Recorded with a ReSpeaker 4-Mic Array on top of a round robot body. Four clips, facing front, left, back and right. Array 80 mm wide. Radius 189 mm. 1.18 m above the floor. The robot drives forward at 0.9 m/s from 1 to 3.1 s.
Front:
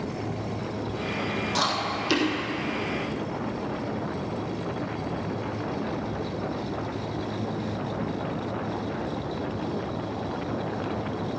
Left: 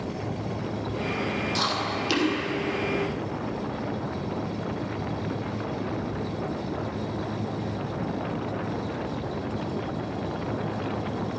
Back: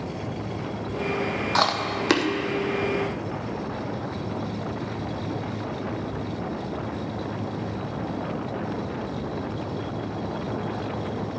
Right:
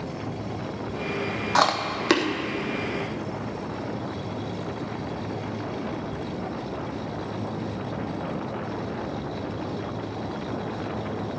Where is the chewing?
115° right, 0.8 m; by 2.3 s 145° right, 1.2 m.